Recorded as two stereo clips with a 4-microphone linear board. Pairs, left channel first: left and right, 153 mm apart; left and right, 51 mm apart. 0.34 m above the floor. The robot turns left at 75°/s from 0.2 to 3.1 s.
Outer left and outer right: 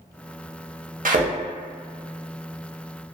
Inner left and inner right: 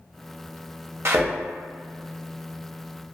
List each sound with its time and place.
1.1 s a thud: 60° right (ahead or behind), 0.5 m; by 1.3 s 50° right (ahead or behind), 0.5 m